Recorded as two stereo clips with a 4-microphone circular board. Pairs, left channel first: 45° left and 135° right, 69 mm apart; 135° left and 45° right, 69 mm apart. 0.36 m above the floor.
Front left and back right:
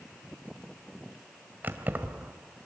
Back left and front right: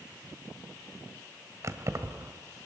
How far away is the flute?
No flute in this recording.